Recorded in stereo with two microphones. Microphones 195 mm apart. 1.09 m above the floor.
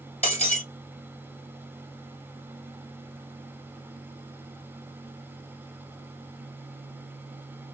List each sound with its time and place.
0.2 s breaking glass: 35° left (ahead or behind), 1.3 m